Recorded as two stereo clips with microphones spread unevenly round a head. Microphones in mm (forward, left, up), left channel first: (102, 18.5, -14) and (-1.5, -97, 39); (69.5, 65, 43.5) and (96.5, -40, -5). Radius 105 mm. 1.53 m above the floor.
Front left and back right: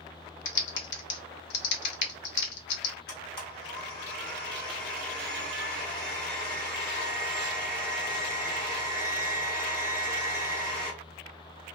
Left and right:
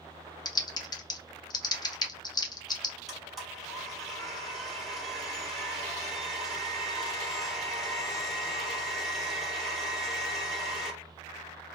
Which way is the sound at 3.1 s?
40° left.